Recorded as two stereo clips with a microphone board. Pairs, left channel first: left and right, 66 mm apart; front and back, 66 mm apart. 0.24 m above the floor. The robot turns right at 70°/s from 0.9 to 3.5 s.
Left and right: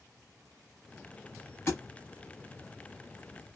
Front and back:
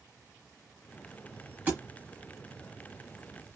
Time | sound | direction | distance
1.7 | a thud | 120° left | 0.9 m